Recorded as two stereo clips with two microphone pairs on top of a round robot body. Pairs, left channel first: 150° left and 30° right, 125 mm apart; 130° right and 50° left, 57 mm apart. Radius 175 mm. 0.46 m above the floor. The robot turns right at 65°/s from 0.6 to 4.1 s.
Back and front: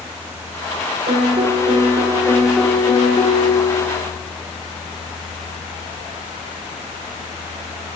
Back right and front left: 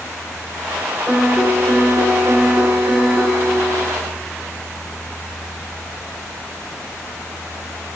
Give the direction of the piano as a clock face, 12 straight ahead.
1 o'clock.